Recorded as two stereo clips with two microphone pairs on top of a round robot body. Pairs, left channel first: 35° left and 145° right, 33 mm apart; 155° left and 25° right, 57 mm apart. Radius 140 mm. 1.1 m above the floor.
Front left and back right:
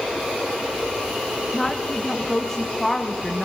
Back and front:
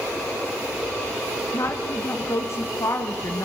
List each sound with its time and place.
1.5 s a woman speaking: 115° left, 1.7 m